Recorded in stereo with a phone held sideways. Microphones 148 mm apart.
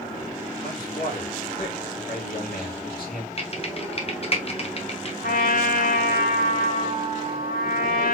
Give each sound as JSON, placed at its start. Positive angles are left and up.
{"t": 0.6, "sound": "a man speaking", "side_deg": 80, "distance_m": 2.0}
{"t": 3.4, "sound": "typing on a keyboard", "side_deg": 45, "distance_m": 0.8}
{"t": 5.2, "sound": "a trumpet", "side_deg": 75, "distance_m": 1.2}